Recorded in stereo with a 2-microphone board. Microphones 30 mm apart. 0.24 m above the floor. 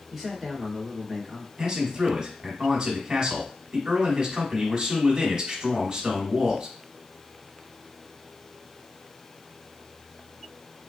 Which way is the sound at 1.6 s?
25° right (ahead or behind).